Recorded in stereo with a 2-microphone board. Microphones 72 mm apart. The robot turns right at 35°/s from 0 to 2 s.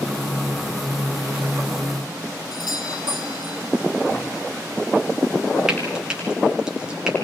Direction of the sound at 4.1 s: 35° left (ahead or behind).